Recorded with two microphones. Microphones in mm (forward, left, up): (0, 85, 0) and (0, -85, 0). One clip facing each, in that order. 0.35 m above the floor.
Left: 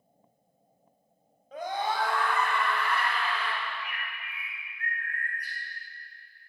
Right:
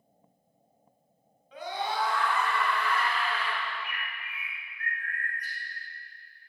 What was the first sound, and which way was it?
A scream, 45° left (ahead or behind).